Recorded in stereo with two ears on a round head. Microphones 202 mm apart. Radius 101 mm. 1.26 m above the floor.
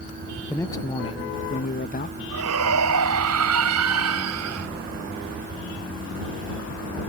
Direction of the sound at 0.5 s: 10° left (ahead or behind).